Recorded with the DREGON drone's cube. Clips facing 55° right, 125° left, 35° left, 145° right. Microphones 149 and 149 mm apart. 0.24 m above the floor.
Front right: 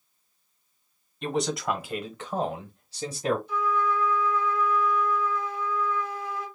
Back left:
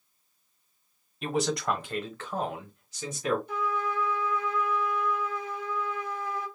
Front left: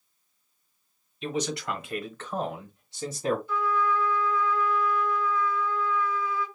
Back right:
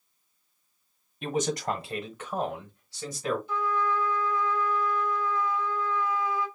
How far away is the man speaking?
About 1.4 m.